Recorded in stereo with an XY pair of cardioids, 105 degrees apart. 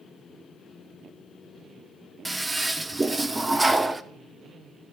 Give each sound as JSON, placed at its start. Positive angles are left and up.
{"t": 2.2, "sound": "a toilet flushing", "azimuth_deg": -20, "distance_m": 0.5}